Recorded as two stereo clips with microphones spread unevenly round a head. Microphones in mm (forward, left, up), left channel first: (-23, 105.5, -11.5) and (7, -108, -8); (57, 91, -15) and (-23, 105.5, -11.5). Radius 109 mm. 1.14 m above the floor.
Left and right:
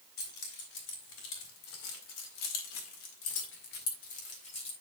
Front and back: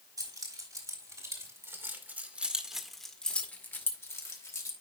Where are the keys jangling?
140° left, 3.5 m; by 4.7 s 35° left, 3 m.